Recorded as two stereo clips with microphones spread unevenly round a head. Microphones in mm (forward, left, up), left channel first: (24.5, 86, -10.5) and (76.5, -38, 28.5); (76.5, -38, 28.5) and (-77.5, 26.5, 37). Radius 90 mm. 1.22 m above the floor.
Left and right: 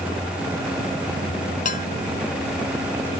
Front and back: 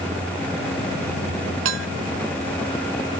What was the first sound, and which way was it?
Dishes clattering, 165° left.